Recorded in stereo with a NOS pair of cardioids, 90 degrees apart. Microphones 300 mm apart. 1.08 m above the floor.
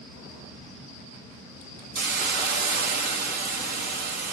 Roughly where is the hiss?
Ahead right.